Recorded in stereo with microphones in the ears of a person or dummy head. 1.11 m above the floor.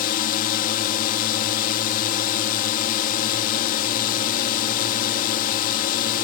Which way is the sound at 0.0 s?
45° left (ahead or behind).